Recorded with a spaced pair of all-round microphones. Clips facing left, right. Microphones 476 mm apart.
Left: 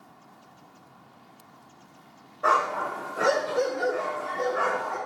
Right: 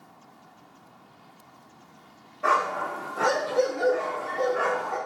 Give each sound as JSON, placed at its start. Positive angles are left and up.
{"t": 2.4, "sound": "a dog barking", "side_deg": -45, "distance_m": 0.9}